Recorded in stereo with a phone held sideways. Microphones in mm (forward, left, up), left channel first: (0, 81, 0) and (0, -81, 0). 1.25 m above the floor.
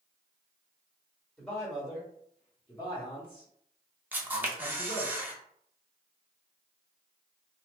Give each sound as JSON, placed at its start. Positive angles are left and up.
{"t": 1.4, "sound": "a man speaking", "side_deg": -5, "distance_m": 1.6}
{"t": 4.1, "sound": "a camera shutter", "side_deg": -10, "distance_m": 0.7}